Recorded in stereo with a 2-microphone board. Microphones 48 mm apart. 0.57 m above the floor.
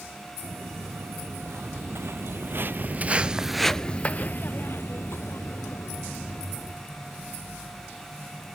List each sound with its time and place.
0.4 s footsteps: 65° right (ahead or behind), 1.9 m; by 6.8 s 70° left (ahead or behind), 1.9 m